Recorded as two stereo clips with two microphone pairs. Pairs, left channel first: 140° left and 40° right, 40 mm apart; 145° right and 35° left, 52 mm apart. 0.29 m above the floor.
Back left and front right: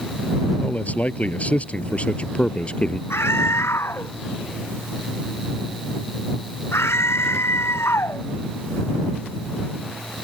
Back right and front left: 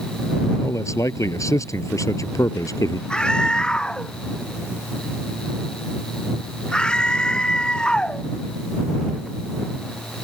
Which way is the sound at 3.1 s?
140° left.